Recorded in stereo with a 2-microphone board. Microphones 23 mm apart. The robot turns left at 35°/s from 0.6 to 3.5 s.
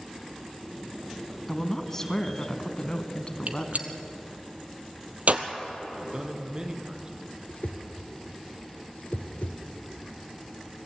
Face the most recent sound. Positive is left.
turn(degrees=60)  # may be behind; listen again after turning